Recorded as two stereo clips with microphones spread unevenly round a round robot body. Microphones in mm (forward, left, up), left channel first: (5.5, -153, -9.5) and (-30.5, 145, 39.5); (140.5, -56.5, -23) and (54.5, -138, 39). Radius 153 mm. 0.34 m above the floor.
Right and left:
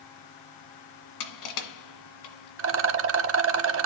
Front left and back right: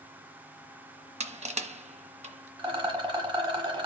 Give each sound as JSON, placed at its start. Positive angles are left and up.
{"t": 1.2, "sound": "crushing", "azimuth_deg": -95, "distance_m": 1.6}
{"t": 2.6, "sound": "a rattle", "azimuth_deg": 145, "distance_m": 0.8}